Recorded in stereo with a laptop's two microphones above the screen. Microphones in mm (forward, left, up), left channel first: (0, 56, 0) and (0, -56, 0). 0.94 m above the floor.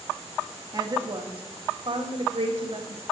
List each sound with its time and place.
0.7 s a woman speaking: 35° right (ahead or behind), 1.6 m; by 3.0 s 65° right (ahead or behind), 1.6 m